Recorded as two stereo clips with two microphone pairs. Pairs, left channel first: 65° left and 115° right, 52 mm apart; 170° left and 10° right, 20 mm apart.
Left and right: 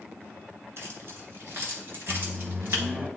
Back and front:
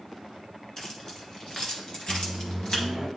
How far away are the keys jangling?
About 1.8 m.